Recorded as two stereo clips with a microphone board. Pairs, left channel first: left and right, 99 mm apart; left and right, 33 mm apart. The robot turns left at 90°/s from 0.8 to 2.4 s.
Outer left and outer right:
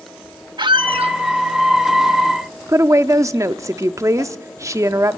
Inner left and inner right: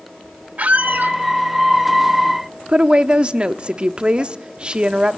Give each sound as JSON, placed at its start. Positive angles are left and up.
{"t": 0.6, "sound": "a squeak", "azimuth_deg": -50, "distance_m": 0.6}
{"t": 2.7, "sound": "a woman speaking", "side_deg": -30, "distance_m": 0.8}